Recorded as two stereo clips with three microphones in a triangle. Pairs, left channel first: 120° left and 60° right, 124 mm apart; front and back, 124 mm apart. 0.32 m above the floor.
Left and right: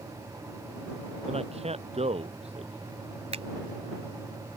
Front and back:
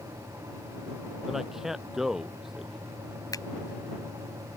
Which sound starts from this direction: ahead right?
A finger snap, at 3.3 s.